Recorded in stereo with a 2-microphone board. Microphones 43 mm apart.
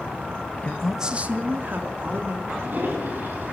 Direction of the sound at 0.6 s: 30° left (ahead or behind).